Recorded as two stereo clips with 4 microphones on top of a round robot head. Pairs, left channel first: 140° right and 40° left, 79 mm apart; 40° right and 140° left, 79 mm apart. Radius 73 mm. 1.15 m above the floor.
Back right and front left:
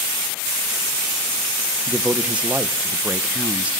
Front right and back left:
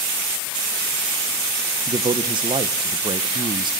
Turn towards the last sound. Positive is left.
turn(degrees=115)